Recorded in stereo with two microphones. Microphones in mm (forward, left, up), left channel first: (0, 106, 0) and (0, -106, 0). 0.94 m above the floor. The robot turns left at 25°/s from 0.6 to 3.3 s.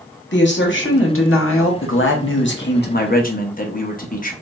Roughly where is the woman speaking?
Left.